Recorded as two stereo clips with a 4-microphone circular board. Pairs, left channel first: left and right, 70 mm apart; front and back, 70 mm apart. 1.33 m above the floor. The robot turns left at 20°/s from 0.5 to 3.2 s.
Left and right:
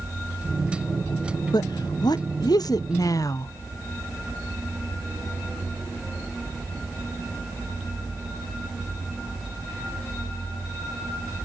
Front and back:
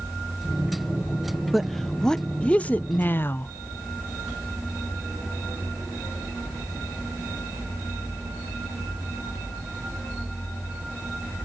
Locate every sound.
1.5 s a woman speaking: 90° left, 0.6 m; by 3.5 s 60° left, 0.6 m